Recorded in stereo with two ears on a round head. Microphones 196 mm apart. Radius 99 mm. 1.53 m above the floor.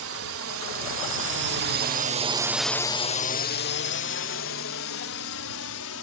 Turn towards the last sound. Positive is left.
turn(degrees=75)  # may be behind; listen again after turning